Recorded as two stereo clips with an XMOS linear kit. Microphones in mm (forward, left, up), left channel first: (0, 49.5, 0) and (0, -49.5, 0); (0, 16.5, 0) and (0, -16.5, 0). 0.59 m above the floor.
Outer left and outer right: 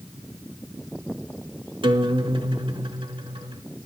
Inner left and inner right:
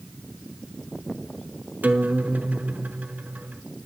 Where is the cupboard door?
No cupboard door in this recording.